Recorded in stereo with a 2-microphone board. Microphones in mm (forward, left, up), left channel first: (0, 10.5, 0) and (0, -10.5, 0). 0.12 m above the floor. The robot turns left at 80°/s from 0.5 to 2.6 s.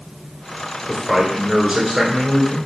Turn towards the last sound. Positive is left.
turn(degrees=-165)